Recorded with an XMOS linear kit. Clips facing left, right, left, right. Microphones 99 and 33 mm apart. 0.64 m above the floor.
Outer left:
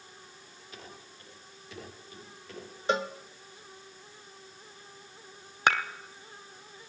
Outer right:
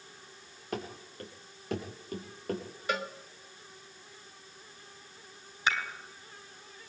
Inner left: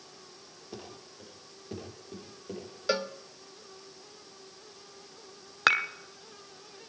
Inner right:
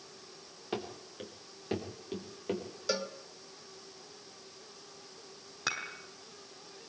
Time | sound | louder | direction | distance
0.7 | running footsteps | outer right 11 dB, inner right 7 dB | 65° right (ahead or behind) | 4 m
2.9 | a cowbell | outer left 5 dB, inner left 5 dB | 25° left (ahead or behind) | 0.9 m
5.7 | dishes clattering | outer left 5 dB, inner left 12 dB | 65° left (ahead or behind) | 1.1 m